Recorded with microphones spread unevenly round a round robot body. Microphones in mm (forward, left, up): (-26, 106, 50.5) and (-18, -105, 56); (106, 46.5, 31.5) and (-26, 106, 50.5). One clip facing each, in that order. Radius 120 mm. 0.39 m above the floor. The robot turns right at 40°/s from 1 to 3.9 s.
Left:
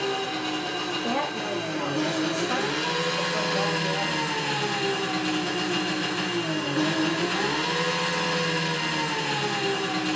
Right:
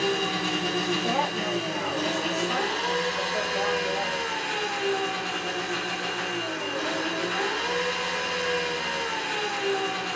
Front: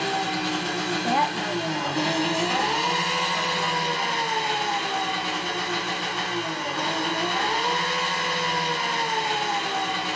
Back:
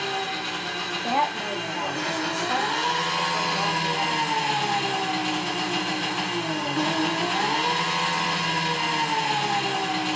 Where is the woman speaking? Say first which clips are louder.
Even, even; 80° left, 1.3 m; by 4.3 s 170° right, 1.3 m.